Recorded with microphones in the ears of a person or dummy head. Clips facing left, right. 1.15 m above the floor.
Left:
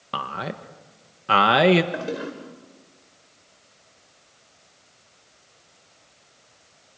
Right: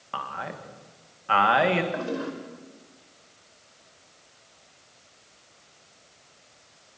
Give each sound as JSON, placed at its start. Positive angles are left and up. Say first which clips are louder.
{"t": 0.1, "sound": "a man speaking", "louder": "left 4 dB", "side_deg": 50, "distance_m": 1.2}
{"t": 1.9, "sound": "a toilet flushing", "louder": "left 1 dB", "side_deg": 35, "distance_m": 3.0}